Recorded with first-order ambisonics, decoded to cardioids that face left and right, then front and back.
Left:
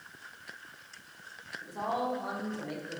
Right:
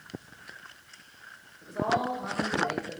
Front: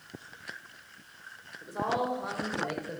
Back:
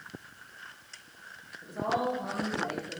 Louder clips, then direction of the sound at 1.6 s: Right 5 dB, even; straight ahead.